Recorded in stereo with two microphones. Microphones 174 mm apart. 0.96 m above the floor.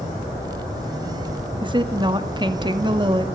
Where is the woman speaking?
25° right (ahead or behind), 1.9 m.